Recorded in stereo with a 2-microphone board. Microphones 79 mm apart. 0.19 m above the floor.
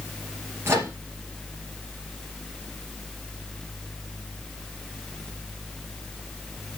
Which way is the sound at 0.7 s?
30° right (ahead or behind).